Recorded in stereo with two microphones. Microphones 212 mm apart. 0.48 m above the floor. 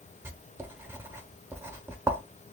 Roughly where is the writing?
Centre.